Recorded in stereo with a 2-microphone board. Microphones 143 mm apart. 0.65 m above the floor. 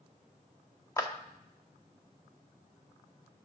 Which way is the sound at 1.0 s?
20° left (ahead or behind).